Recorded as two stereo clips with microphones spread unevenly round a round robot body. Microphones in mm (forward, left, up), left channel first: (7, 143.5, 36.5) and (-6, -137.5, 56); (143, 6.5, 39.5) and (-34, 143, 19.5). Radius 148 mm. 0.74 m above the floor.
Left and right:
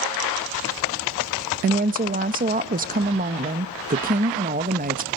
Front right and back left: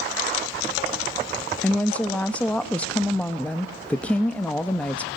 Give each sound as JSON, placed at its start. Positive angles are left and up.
{"t": 1.6, "sound": "a woman speaking", "azimuth_deg": -125, "distance_m": 0.7}